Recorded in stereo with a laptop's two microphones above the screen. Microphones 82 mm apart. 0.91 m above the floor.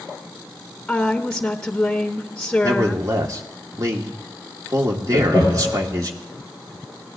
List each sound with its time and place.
0.9 s a woman speaking: 5° left (ahead or behind), 1.0 m
2.6 s a man speaking: 45° right (ahead or behind), 1.8 m
5.1 s laughter: 75° right (ahead or behind), 2.5 m